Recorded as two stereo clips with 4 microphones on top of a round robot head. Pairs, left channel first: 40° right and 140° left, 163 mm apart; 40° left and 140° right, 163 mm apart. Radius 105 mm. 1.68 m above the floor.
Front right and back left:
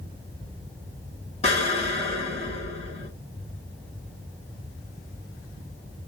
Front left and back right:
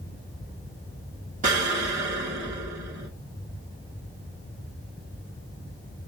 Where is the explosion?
95° right, 1.6 m.